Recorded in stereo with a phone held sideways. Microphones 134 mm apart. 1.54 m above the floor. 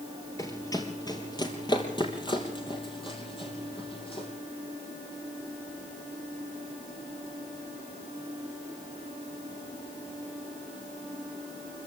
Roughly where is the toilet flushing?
I don't hear a toilet flushing.